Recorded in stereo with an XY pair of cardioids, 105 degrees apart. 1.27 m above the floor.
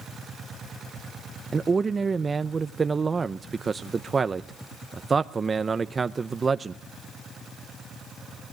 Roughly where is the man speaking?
Ahead right.